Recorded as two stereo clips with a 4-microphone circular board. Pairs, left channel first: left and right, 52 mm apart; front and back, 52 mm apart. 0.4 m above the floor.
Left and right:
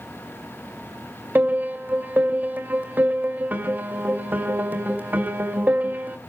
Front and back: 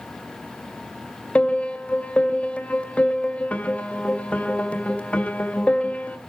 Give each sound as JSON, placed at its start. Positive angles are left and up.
{"t": 1.4, "sound": "a piano", "azimuth_deg": -55, "distance_m": 1.9}